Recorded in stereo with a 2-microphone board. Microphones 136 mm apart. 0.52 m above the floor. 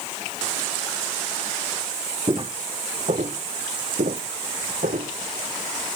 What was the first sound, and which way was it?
Footsteps, 35° right (ahead or behind).